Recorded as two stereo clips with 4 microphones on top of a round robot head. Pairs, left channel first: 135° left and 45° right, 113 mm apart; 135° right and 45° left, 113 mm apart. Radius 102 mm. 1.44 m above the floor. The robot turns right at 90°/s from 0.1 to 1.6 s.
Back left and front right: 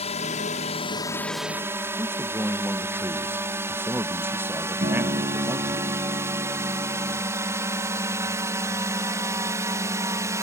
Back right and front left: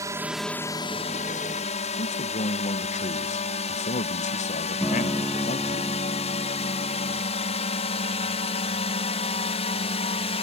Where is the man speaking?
120° right.